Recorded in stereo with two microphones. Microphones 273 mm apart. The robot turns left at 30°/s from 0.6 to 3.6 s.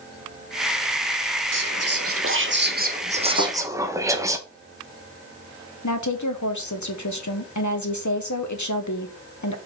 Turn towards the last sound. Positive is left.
turn(degrees=80)